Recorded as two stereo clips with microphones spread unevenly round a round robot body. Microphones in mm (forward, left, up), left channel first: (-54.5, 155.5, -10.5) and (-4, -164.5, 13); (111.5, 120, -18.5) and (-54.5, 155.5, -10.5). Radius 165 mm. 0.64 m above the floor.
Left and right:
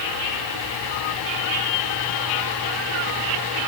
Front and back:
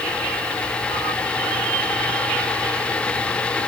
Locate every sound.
Only background noise.